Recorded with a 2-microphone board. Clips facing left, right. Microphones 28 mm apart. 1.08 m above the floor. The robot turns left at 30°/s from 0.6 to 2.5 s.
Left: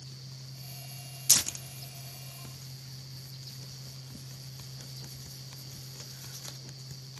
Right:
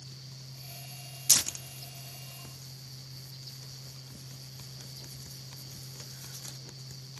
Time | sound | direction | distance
1.3 | tearing paper | 5° right (ahead or behind) | 0.6 m